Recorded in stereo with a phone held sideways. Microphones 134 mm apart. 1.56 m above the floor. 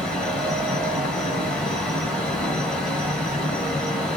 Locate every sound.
0.0 s a fan: 5° left (ahead or behind), 1.2 m